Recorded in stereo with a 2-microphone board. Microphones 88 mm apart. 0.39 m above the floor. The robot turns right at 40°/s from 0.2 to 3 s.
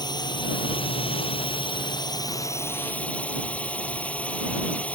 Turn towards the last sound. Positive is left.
turn(degrees=165)